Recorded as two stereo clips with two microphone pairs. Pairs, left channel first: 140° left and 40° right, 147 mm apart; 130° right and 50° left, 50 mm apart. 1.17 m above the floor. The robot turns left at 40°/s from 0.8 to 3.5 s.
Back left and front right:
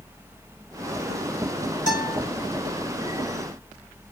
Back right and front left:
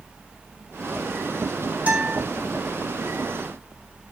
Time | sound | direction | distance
1.9 | a guitar | 110° left | 3.5 m